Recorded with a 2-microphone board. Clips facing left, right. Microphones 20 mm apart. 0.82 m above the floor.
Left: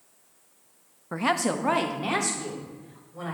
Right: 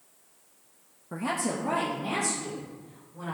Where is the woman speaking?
35° left (ahead or behind), 0.5 m; by 3.3 s 70° left (ahead or behind), 3.5 m.